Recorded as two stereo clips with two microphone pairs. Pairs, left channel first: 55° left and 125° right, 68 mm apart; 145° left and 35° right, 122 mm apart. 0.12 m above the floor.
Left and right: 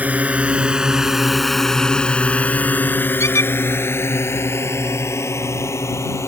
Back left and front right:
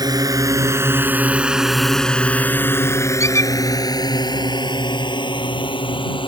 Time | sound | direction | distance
0.0 | a drone | 70° right | ?
3.2 | a squeak | 85° left | ?